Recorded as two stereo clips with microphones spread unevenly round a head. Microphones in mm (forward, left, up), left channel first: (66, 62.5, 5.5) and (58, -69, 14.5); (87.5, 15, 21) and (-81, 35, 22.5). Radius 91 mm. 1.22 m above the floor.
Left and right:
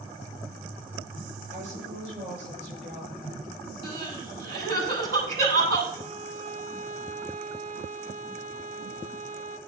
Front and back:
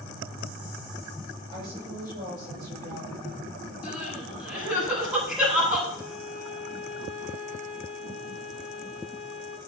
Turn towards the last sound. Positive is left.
turn(degrees=-95)